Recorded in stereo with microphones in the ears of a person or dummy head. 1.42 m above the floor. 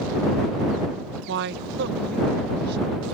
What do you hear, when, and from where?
1.3 s a woman speaking: 65° right (ahead or behind); by 3.0 s 60° right (ahead or behind)